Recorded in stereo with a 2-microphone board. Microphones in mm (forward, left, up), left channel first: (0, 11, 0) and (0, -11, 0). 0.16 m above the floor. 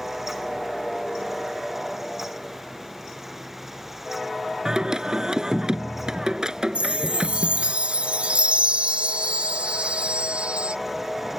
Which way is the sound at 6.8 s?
75° right (ahead or behind).